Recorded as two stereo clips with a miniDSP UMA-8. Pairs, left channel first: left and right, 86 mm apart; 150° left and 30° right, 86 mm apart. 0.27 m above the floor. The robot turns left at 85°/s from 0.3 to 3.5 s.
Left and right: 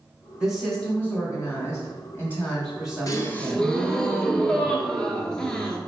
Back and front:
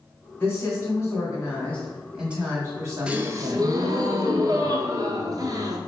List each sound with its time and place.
0.4 s a woman speaking: 160° right, 1.7 m; by 3.8 s 65° right, 1.7 m
3.1 s a gasp: 45° left, 0.7 m; by 5.8 s 10° left, 0.7 m